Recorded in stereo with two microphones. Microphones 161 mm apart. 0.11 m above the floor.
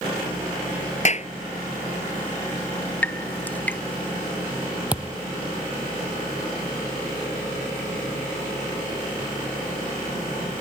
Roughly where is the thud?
Centre.